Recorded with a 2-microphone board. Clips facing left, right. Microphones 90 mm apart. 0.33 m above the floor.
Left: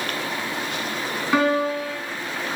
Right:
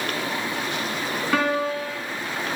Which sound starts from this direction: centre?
A piano, at 1.3 s.